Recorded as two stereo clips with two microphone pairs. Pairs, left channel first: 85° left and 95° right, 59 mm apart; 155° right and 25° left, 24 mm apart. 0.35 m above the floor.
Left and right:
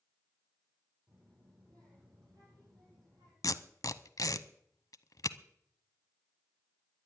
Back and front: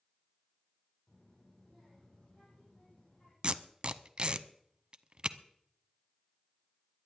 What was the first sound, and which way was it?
A child speaking, 85° right.